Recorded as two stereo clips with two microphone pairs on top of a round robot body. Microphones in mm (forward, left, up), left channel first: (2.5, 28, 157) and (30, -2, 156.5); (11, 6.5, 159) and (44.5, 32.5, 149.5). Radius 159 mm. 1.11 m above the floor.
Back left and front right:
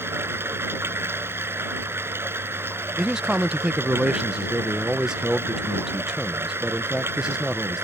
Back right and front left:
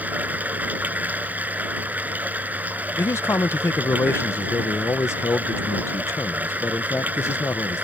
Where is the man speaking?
120° right.